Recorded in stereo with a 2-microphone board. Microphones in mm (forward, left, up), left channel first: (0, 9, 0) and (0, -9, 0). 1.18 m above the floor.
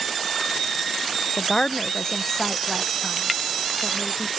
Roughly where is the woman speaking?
Left.